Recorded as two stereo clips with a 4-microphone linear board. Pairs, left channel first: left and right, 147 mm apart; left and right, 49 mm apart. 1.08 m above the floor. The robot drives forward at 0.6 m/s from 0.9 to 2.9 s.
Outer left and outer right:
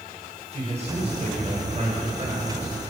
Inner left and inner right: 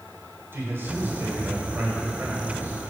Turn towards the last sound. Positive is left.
turn(degrees=-40)  # may be behind; listen again after turning